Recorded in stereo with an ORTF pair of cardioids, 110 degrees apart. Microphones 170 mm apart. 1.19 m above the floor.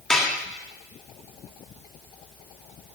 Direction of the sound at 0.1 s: 5° left.